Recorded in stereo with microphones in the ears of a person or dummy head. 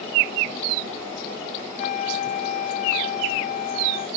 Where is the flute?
35° left (ahead or behind).